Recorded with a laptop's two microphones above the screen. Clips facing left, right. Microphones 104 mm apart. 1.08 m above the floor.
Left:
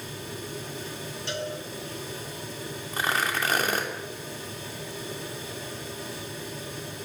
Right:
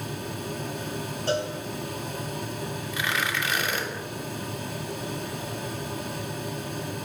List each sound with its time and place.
0.0 s a fan: 55° right (ahead or behind), 4 m
1.3 s a cowbell: 40° right (ahead or behind), 5.5 m
2.9 s tearing paper: 40° left (ahead or behind), 3 m